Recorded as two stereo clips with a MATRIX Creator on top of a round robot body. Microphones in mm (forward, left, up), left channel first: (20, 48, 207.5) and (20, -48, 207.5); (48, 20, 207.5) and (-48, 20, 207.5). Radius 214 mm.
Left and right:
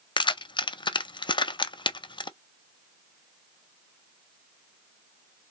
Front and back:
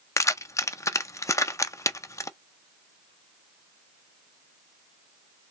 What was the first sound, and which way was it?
Keys jangling, 55° left.